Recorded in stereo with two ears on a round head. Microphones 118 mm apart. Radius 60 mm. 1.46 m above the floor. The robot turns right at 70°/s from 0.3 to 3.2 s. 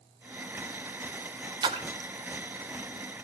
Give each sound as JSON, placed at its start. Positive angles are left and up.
{"t": 1.6, "sound": "a splash", "side_deg": -35, "distance_m": 0.6}